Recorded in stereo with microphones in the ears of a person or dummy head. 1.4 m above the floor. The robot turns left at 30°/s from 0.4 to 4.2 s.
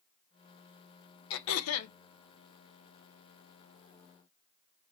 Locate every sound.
1.3 s throat clearing: 75° left (ahead or behind), 0.6 m; by 1.9 s 85° left, 0.6 m